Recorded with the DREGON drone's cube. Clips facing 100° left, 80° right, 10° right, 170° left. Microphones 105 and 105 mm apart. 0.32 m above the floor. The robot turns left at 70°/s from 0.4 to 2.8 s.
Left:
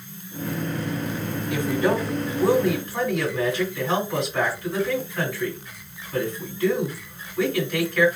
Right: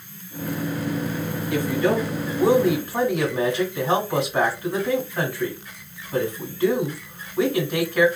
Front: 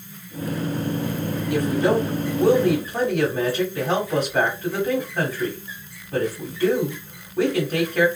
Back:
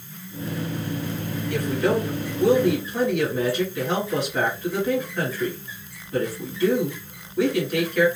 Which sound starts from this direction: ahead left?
A woman speaking, at 1.5 s.